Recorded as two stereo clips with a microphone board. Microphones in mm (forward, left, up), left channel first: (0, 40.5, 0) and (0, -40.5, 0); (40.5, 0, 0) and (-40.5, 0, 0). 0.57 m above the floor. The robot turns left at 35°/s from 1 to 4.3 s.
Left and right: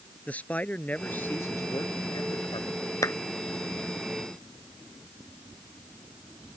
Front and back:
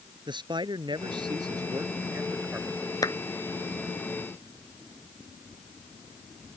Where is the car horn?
I don't hear a car horn.